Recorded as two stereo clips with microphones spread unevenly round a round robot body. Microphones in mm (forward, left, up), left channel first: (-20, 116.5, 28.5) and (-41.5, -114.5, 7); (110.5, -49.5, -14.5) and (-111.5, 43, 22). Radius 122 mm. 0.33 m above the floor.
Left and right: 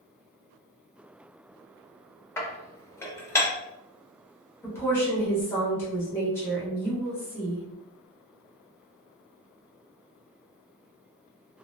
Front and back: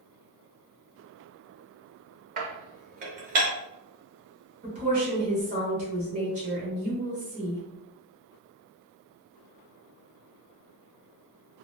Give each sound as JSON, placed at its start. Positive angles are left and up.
{"t": 2.4, "sound": "dishes clattering", "azimuth_deg": 160, "distance_m": 0.5}
{"t": 4.6, "sound": "a woman speaking", "azimuth_deg": 165, "distance_m": 1.0}